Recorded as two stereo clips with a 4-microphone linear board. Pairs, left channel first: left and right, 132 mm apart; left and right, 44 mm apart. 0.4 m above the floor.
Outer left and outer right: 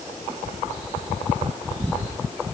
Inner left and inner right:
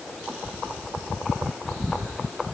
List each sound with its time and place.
Only background noise.